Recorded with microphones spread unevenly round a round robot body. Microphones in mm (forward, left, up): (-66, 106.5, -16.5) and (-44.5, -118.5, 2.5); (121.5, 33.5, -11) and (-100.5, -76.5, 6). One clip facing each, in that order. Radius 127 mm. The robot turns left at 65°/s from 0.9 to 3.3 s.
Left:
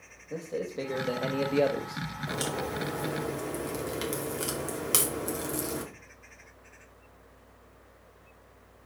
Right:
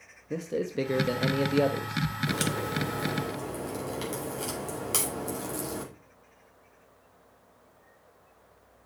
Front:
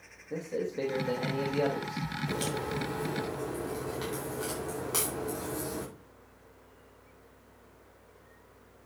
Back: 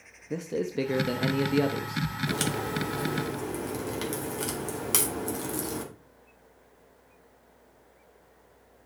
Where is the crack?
135° right, 2.5 m; by 5.8 s 160° left, 2.5 m.